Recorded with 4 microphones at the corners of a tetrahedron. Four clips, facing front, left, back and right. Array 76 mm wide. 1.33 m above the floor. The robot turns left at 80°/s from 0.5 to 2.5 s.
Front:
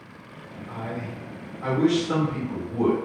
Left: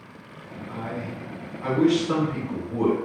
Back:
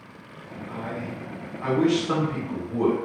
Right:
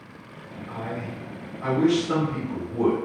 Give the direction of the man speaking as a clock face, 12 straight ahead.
3 o'clock.